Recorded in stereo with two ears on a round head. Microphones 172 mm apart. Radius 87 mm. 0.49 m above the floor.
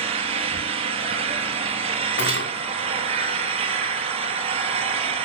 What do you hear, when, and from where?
0.0 s an engine running: 30° right (ahead or behind), 3 m
2.2 s cutlery clinking: 60° left (ahead or behind), 2.5 m